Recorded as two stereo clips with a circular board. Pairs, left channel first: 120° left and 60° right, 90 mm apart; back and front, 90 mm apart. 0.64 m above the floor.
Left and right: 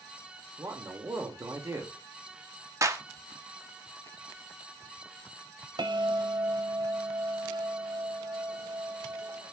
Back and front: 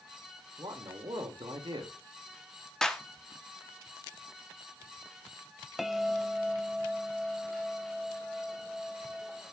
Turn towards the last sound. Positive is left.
turn(degrees=-90)